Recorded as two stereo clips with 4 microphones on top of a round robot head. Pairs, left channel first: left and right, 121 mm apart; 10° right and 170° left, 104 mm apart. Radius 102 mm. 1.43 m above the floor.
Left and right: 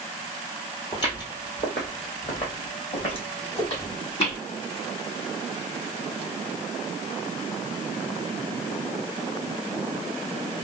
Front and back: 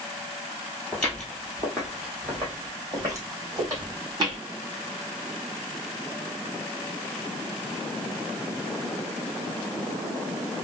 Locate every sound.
0.9 s footsteps: 50° left, 1.5 m; by 4.4 s 125° left, 3 m